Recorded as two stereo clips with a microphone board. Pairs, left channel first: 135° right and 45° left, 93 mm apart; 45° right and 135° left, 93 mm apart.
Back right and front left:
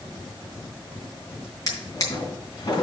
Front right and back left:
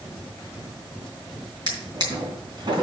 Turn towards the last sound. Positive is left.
turn(degrees=175)